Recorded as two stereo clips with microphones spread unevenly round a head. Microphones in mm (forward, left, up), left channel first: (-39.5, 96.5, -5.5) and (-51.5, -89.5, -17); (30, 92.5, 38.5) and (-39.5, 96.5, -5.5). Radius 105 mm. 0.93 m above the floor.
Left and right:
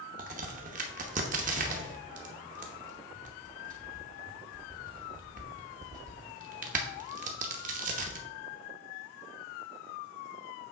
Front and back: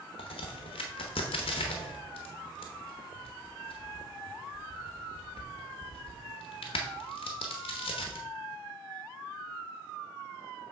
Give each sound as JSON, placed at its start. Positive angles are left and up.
{"t": 0.2, "sound": "a crack", "azimuth_deg": -40, "distance_m": 0.7}